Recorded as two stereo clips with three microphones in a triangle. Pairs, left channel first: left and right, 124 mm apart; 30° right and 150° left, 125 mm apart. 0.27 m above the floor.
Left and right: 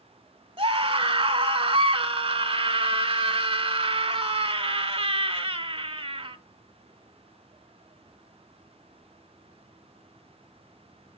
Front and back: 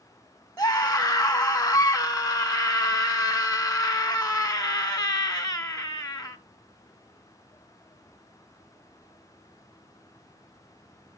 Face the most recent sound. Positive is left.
turn(degrees=-90)